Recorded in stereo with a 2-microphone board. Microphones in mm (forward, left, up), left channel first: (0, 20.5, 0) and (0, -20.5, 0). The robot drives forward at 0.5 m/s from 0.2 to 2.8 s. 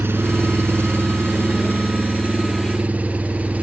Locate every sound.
0.0 s an engine running: 80° right, 0.9 m; by 3.6 s 35° right (ahead or behind), 1.5 m